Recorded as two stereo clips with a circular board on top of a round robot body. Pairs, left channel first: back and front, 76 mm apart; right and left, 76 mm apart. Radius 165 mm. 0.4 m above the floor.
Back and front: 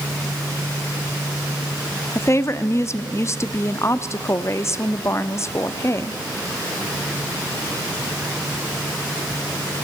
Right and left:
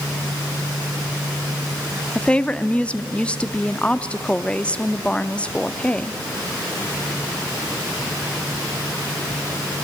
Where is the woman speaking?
155° right, 0.9 m.